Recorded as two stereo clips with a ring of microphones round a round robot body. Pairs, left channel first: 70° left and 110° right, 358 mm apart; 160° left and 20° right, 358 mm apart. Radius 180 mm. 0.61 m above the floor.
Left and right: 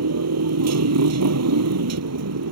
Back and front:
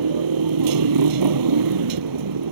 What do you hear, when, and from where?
0.0 s a motorcycle: 60° right